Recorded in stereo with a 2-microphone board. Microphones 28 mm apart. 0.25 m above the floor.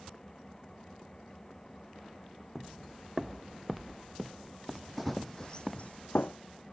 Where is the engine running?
20° left (ahead or behind).